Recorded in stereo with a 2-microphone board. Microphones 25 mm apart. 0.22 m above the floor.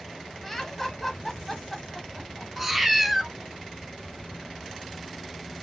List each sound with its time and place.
0.4 s laughter: 10° left (ahead or behind), 1.1 m
2.6 s a cat meowing: 5° right (ahead or behind), 0.8 m